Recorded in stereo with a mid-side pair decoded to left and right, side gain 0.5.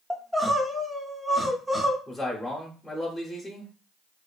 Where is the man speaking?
5° left, 0.7 m.